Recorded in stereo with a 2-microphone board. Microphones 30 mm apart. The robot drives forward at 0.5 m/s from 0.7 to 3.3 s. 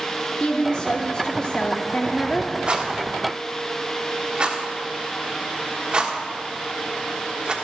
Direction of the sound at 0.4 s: 25° left (ahead or behind).